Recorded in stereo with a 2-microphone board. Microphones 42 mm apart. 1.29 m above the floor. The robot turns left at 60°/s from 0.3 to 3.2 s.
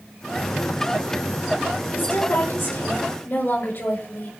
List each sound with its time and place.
1.9 s a woman speaking: 130° left, 6 m; by 4.3 s 55° left, 6 m